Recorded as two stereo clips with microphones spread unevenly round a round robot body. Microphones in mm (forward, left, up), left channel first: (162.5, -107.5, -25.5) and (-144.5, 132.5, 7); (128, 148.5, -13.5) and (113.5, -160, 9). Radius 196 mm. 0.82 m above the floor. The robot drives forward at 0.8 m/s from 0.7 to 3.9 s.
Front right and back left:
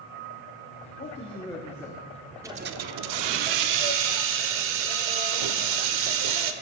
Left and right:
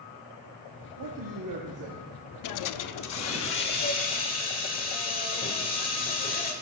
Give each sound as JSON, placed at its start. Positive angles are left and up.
{"t": 1.0, "sound": "a man speaking", "azimuth_deg": -100, "distance_m": 1.4}
{"t": 2.4, "sound": "a hiss", "azimuth_deg": 60, "distance_m": 0.5}